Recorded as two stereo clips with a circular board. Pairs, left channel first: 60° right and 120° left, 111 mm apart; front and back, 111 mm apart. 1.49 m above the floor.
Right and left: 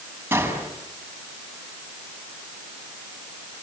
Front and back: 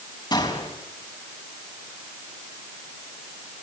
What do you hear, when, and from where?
0.3 s a gunshot: 50° left, 5 m